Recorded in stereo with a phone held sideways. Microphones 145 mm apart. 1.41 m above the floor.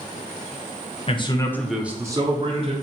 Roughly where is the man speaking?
Left.